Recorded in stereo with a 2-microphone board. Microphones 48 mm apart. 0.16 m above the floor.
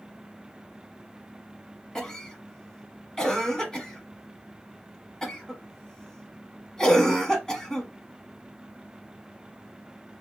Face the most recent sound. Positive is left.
turn(degrees=15)  # may be behind; listen again after turning